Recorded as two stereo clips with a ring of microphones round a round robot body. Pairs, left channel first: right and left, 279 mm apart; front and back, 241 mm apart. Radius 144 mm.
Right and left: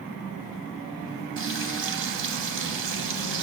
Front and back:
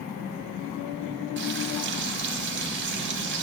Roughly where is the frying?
Behind left.